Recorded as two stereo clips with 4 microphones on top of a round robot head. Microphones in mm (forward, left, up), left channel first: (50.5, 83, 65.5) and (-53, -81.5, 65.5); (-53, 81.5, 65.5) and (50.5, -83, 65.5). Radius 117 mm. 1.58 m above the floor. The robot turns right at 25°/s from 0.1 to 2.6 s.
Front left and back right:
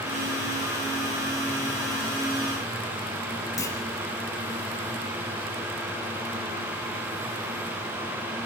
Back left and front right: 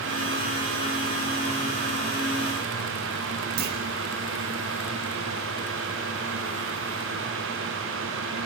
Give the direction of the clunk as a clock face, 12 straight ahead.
1 o'clock.